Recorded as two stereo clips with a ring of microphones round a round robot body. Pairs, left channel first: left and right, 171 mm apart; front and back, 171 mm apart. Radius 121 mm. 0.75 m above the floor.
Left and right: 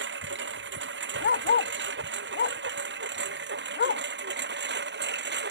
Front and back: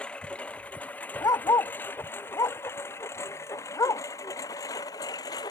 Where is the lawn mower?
85° right; by 5.5 s 75° right.